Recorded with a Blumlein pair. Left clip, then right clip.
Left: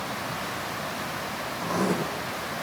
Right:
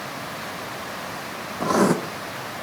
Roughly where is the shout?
I don't hear a shout.